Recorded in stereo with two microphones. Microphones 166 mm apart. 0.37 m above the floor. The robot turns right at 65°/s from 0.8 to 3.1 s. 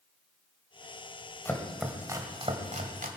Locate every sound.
1.4 s chopping: 15° left (ahead or behind), 1.8 m; by 3.1 s 55° right (ahead or behind), 1.8 m